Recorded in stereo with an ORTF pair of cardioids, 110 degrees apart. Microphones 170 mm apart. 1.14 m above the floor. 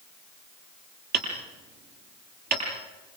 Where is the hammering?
65° right, 9.5 m.